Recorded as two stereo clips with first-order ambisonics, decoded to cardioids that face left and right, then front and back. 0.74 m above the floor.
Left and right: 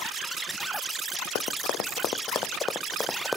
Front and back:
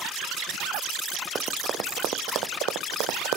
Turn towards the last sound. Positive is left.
turn(degrees=175)